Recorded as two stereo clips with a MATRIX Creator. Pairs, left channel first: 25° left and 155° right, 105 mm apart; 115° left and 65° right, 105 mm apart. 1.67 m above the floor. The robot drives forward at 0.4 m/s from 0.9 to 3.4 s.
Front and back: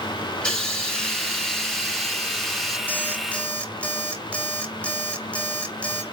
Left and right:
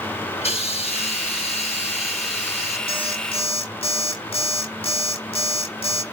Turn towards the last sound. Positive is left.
turn(degrees=100)